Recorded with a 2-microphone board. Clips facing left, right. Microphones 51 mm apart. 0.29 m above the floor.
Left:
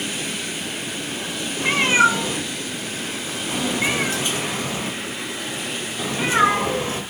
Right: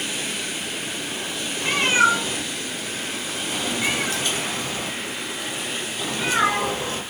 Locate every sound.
1.6 s a cat meowing: 25° left (ahead or behind), 1.2 m